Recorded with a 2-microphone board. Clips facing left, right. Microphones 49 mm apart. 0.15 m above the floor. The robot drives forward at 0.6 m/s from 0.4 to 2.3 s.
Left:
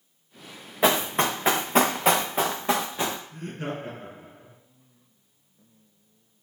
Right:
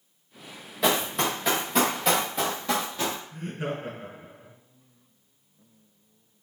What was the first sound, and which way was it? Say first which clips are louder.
Running footsteps: left 3 dB; 35° left (ahead or behind).